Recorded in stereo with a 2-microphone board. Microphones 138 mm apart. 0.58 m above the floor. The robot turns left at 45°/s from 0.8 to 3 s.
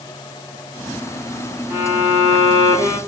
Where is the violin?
30° right, 1.3 m; by 3.0 s 85° right, 1.3 m.